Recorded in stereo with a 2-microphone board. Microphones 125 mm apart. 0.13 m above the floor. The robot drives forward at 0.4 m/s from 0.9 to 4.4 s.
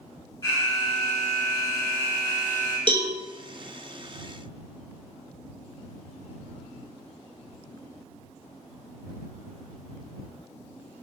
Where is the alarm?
30° left (ahead or behind), 1.4 m; by 2.8 s 25° left (ahead or behind), 1.7 m.